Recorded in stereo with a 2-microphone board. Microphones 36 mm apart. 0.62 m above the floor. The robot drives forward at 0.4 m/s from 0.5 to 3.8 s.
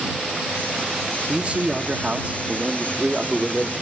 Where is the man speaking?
35° right (ahead or behind), 1.0 m; by 3.7 s 30° right (ahead or behind), 1.3 m.